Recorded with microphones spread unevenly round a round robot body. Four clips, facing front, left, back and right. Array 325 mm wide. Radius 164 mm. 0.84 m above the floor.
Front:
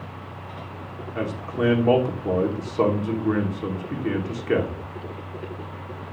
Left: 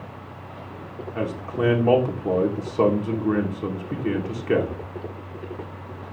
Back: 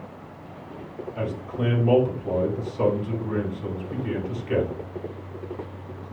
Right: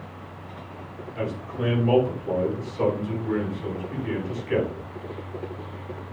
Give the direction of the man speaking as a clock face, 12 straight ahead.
10 o'clock.